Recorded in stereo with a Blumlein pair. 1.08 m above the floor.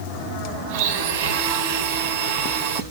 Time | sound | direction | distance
0.7 | a blender | 55° right | 1.1 m